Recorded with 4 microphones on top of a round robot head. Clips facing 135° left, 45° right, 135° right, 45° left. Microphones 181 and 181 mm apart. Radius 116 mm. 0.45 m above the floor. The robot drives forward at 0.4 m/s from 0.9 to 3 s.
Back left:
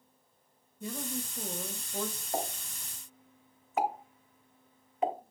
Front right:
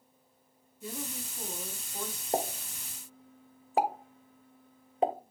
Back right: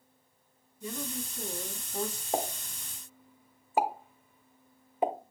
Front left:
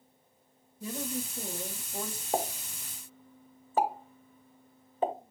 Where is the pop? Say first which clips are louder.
Front right 6 dB, front left 1 dB; 45° right, 1.0 m; by 5.1 s 65° right, 0.9 m.